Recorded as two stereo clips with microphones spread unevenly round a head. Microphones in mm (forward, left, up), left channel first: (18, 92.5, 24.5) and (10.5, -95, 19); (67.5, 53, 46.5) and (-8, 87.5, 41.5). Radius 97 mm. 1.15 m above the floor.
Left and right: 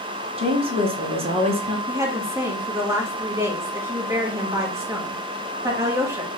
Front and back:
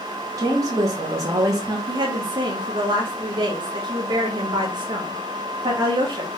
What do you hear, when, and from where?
0.4 s a woman speaking: 150° right, 1.2 m
1.9 s a woman speaking: 165° right, 1.4 m